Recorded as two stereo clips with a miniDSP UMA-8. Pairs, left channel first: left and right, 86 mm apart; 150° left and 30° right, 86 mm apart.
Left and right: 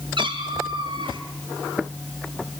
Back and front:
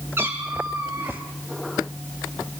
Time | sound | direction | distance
0.2 | a cat meowing | 90° right | 6.5 m